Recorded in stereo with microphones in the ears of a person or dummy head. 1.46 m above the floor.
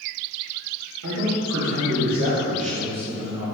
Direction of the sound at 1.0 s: 80° right.